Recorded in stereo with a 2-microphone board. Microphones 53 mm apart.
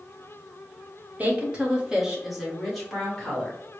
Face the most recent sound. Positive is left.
turn(degrees=15)  # may be behind; listen again after turning